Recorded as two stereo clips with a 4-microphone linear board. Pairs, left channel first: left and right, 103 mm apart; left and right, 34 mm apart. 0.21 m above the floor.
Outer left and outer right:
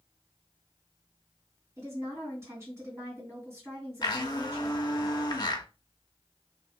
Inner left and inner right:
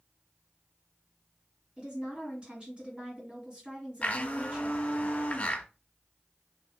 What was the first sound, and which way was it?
A woman speaking, 25° right (ahead or behind).